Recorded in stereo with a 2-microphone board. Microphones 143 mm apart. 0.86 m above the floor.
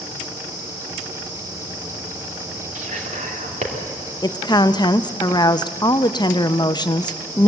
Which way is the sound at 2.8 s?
65° right (ahead or behind).